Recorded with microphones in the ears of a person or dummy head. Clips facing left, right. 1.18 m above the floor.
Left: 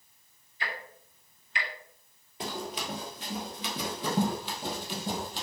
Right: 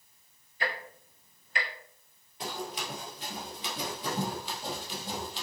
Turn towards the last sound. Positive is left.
turn(degrees=50)  # may be behind; listen again after turning